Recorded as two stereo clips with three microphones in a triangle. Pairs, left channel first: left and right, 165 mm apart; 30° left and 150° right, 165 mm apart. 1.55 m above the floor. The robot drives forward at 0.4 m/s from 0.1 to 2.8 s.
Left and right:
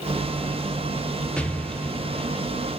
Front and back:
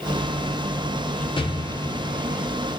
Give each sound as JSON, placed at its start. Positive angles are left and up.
{"t": 1.4, "sound": "an explosion", "azimuth_deg": 10, "distance_m": 0.6}